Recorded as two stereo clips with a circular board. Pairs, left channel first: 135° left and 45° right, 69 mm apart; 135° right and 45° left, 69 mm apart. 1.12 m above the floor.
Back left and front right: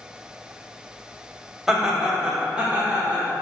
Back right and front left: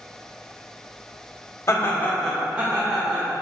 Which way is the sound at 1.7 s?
130° right.